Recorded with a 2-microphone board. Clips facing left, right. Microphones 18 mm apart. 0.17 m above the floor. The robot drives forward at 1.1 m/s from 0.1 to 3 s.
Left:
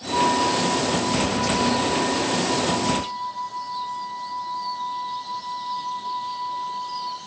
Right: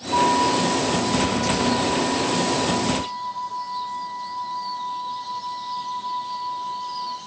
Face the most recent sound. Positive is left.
turn(degrees=-5)  # may be behind; listen again after turning